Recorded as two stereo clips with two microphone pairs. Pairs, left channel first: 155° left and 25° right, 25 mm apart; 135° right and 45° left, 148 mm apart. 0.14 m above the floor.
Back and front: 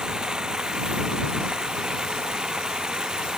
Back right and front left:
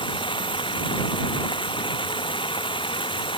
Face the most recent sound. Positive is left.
turn(degrees=-80)